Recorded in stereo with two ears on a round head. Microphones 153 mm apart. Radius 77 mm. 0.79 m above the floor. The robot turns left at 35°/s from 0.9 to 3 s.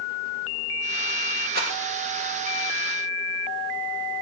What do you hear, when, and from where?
1.5 s a rattle: 60° right (ahead or behind), 2.5 m; by 1.7 s 55° right (ahead or behind), 2.5 m